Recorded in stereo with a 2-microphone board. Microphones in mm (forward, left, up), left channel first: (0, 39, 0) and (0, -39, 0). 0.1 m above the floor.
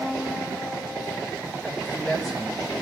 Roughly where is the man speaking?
Centre.